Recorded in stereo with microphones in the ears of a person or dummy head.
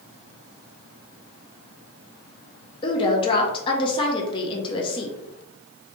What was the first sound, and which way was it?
A woman speaking, 35° left (ahead or behind).